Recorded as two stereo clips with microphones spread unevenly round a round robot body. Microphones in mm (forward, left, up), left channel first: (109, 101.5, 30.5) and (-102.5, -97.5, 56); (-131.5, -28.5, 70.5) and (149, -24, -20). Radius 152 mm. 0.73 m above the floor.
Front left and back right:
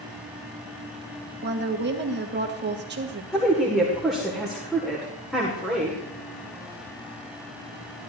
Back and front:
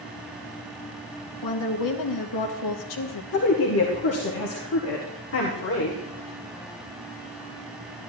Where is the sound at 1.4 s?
175° left, 1.6 m.